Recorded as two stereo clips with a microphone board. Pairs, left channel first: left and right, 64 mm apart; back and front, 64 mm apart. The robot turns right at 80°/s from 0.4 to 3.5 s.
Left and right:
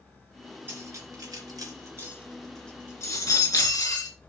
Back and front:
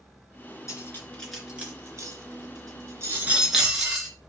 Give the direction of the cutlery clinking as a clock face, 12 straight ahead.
5 o'clock.